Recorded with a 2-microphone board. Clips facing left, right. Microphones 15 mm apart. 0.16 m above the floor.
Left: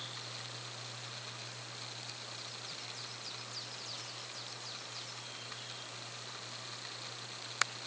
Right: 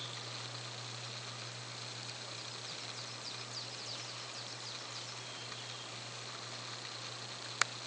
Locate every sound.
Only background noise.